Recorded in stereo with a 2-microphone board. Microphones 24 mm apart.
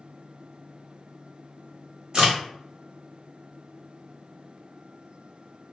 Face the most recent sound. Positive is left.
turn(degrees=-40)  # may be behind; listen again after turning